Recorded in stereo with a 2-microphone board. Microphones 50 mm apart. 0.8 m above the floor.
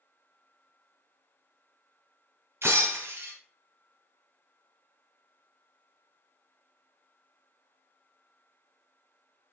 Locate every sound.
2.6 s breaking glass: 55° right (ahead or behind), 2.5 m